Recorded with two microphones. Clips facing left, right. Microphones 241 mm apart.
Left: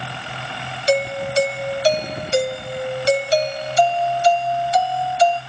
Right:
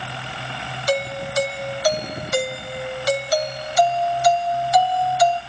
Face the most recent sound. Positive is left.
turn(degrees=25)  # may be behind; listen again after turning